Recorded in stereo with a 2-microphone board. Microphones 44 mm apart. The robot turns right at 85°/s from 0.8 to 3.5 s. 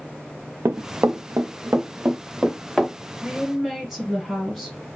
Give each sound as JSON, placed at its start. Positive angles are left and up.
{"t": 0.7, "sound": "running footsteps", "side_deg": -75, "distance_m": 0.6}
{"t": 3.2, "sound": "a woman speaking", "side_deg": -5, "distance_m": 1.4}